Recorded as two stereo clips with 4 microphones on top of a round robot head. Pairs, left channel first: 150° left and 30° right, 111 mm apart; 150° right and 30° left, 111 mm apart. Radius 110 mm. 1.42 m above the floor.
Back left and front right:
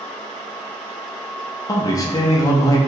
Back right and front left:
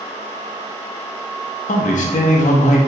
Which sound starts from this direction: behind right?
A man speaking, at 1.7 s.